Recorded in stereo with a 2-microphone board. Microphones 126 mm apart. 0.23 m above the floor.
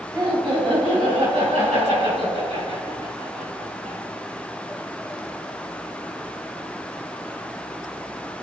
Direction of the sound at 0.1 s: 35° right (ahead or behind).